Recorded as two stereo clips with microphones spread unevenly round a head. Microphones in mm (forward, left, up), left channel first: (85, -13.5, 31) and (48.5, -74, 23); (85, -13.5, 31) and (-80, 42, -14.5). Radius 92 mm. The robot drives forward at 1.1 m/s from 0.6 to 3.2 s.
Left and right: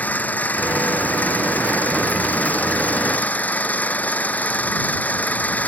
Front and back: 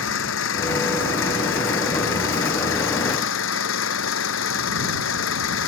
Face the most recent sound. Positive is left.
turn(degrees=-10)